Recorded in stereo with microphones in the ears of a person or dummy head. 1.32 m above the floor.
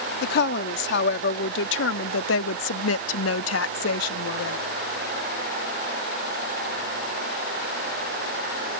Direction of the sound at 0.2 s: 60° left (ahead or behind).